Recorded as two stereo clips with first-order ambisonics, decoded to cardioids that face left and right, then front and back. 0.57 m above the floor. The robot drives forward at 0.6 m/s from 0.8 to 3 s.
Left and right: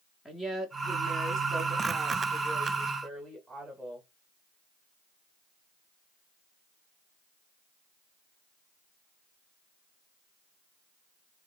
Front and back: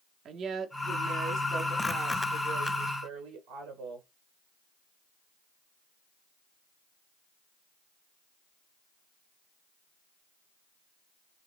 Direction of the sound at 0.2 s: 160° left.